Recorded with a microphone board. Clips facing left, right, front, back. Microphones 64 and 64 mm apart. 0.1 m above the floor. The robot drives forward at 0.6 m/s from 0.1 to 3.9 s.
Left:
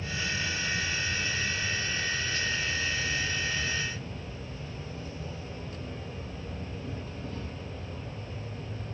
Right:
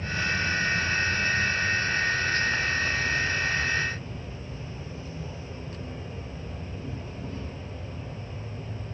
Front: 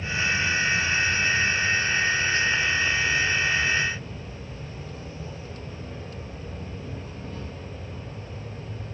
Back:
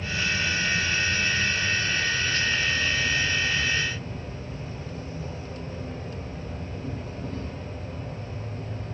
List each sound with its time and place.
0.0 s an insect: 85° right, 1.6 m; by 8.9 s 150° right, 3 m